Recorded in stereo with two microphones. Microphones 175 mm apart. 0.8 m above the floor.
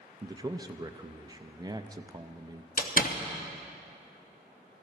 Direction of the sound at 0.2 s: 25° right (ahead or behind).